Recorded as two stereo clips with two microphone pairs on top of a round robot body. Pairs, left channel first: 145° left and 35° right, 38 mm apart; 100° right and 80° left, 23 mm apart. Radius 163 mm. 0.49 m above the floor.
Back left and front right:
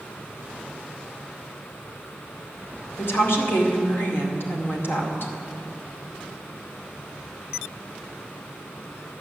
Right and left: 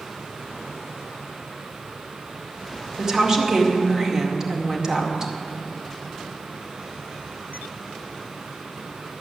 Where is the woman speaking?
135° left, 2 m.